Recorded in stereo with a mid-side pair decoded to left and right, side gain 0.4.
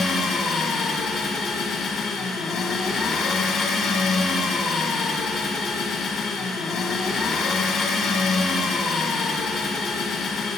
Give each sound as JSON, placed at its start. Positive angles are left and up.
{"t": 0.0, "sound": "an engine running", "azimuth_deg": 70, "distance_m": 1.2}